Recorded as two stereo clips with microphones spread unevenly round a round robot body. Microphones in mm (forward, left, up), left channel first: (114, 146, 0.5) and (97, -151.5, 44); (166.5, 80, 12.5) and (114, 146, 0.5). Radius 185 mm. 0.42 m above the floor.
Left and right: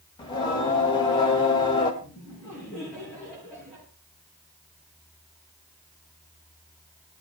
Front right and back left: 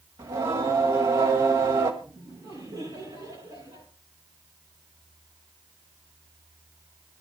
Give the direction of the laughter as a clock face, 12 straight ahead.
6 o'clock.